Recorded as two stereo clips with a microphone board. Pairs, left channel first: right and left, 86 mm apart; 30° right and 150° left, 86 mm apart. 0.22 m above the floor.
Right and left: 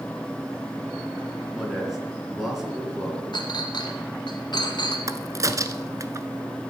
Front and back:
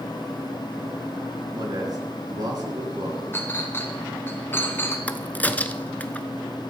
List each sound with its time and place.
1.5 s a man speaking: 175° left, 3 m
3.3 s a clink: 90° right, 1.5 m
5.1 s a crack: 40° left, 0.7 m